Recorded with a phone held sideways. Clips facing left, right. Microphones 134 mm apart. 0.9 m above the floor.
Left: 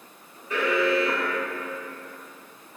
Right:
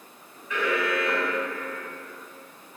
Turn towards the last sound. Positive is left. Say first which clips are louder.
# left 3 dB
turn(degrees=35)  # may be behind; listen again after turning